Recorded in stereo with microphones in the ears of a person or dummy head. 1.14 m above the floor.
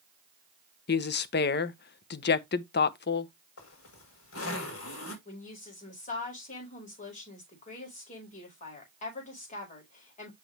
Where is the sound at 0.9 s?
50° left (ahead or behind), 0.8 m.